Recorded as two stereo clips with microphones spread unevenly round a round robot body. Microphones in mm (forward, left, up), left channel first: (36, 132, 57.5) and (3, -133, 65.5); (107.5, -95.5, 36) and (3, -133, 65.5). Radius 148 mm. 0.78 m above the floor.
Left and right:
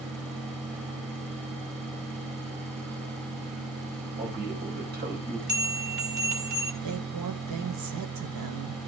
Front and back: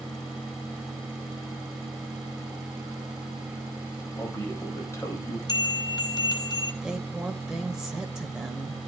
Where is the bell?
35° right, 4 m.